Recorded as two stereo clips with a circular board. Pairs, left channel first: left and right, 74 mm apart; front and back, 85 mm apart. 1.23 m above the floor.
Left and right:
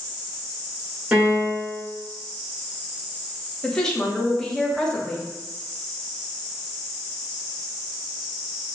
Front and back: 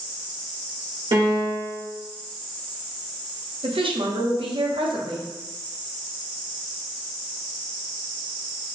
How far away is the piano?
About 1.6 m.